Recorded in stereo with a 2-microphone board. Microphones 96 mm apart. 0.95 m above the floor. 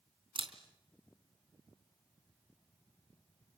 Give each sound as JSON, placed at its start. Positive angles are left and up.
{"t": 0.3, "sound": "a camera shutter", "side_deg": -60, "distance_m": 3.5}